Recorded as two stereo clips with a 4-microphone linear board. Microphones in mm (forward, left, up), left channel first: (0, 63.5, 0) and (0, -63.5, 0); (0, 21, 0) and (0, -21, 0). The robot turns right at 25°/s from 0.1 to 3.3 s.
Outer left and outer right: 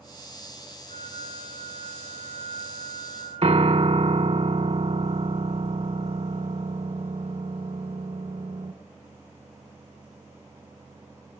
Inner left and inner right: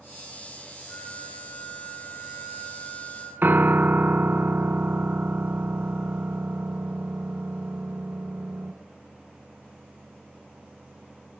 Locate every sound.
0.9 s a flute: 65° left, 8 m; by 3.3 s 125° left, 8 m
3.4 s a piano: 55° right (ahead or behind), 0.7 m